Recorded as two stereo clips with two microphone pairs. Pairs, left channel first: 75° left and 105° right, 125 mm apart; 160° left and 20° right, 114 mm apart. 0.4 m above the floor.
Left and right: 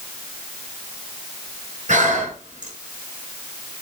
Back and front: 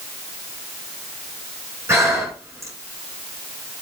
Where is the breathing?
85° right, 5 m.